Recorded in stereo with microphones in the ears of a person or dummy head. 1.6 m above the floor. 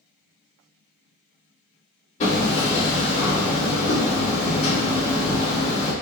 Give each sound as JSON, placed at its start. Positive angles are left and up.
{"t": 2.2, "sound": "hammering", "side_deg": 40, "distance_m": 1.9}